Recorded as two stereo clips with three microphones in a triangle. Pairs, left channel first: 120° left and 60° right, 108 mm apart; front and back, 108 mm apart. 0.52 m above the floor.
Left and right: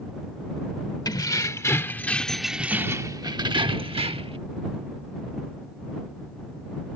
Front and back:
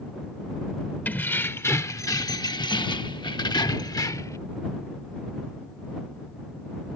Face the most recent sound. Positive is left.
turn(degrees=-55)